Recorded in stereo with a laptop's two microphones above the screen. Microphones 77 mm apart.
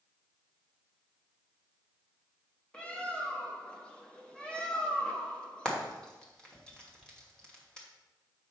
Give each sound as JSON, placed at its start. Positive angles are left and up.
{"t": 2.7, "sound": "a bird", "side_deg": 15, "distance_m": 0.6}
{"t": 5.7, "sound": "frying", "side_deg": 10, "distance_m": 1.1}